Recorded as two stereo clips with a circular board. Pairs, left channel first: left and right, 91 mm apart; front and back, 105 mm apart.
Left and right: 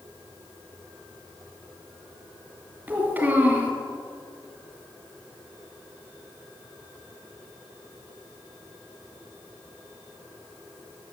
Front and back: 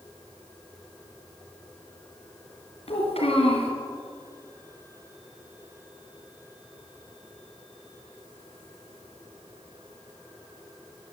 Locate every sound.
2.9 s a child speaking: 20° right, 4.5 m